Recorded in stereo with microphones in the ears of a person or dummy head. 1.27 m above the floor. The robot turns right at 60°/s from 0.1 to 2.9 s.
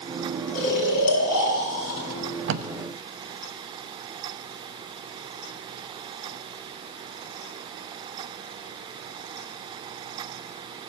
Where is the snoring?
55° left, 3.5 m; by 2.0 s 140° left, 3.5 m.